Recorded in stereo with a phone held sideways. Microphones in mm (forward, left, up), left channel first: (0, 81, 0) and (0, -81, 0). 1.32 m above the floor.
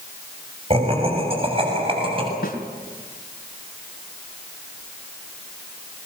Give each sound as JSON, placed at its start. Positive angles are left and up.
{"t": 0.7, "sound": "laughter", "side_deg": -40, "distance_m": 6.5}
{"t": 2.4, "sound": "a snare drum", "side_deg": 70, "distance_m": 3.0}